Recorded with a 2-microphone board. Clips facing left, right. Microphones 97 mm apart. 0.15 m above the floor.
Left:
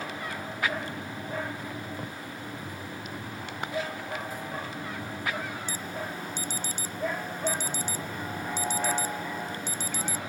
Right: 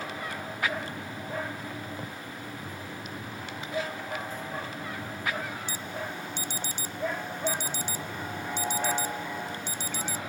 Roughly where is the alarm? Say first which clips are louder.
Left 1 dB; left.